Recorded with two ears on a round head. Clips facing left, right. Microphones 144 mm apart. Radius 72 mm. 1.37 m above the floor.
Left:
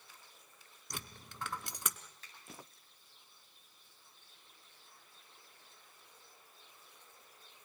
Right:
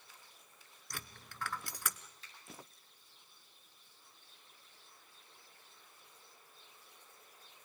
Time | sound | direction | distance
0.9 | a dropped coin | 20° left (ahead or behind) | 1.3 m
2.2 | a finger snap | 40° left (ahead or behind) | 8 m